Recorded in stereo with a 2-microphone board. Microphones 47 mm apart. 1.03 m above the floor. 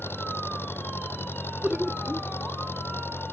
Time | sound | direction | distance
0.0 | an engine running | 55° left (ahead or behind) | ?
1.6 | laughter | 20° right (ahead or behind) | ?